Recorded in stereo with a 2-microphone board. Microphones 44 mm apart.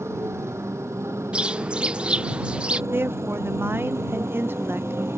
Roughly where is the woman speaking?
Right.